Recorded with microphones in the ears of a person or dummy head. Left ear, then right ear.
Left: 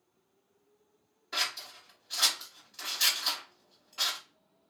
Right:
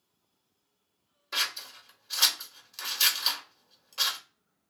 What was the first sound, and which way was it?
Scissors, 25° right (ahead or behind).